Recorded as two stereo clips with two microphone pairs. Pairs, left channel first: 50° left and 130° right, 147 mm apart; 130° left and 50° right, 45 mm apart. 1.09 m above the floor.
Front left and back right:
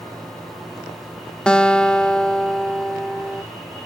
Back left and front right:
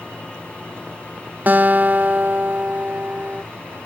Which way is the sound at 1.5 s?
30° right.